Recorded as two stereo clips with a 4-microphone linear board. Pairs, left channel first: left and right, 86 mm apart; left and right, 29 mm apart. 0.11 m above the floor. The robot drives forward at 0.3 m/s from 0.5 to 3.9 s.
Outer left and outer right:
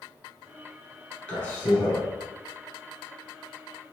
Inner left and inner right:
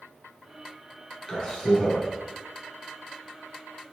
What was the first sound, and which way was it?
A man speaking, 15° left (ahead or behind).